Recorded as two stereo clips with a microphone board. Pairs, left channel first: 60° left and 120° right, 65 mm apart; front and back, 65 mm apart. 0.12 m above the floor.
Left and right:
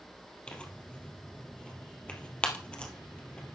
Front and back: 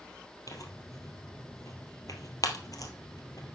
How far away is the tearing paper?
About 2 m.